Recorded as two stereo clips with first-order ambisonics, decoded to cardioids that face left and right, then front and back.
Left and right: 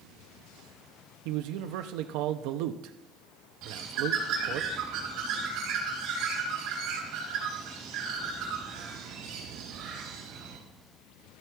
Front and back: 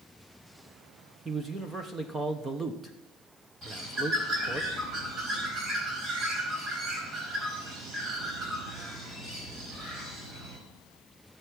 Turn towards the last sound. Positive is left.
turn(degrees=-120)